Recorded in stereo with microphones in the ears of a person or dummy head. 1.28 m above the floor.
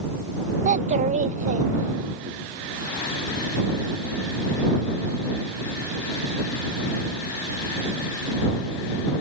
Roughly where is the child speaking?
Right.